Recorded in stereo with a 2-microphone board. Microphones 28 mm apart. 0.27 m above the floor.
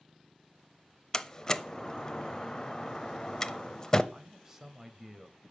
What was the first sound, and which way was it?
A door slam, 25° left (ahead or behind).